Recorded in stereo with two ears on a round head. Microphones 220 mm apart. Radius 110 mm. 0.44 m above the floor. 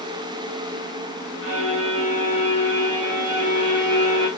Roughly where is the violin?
Right.